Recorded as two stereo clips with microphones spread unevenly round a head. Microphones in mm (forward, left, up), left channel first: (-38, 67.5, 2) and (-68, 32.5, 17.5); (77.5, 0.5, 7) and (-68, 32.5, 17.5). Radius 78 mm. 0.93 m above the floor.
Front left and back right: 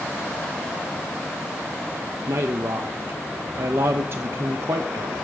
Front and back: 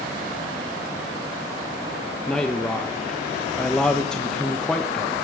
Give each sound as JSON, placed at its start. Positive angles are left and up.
{"t": 2.3, "sound": "a man speaking", "azimuth_deg": -90, "distance_m": 1.0}